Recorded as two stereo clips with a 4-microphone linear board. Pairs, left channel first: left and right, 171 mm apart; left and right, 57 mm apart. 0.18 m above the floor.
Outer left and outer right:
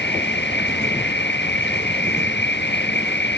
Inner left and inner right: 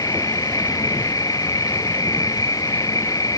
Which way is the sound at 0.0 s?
85° left.